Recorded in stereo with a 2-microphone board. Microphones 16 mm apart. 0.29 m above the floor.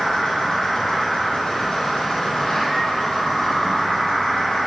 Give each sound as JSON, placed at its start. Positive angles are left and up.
{"t": 0.0, "sound": "an insect", "side_deg": 45, "distance_m": 1.8}